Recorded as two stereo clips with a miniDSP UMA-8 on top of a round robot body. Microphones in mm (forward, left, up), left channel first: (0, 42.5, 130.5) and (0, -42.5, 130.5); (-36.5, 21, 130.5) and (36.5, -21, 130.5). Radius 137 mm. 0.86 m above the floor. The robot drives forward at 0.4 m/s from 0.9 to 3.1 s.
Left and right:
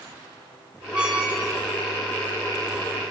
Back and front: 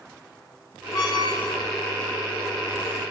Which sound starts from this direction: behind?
A squeak, at 0.9 s.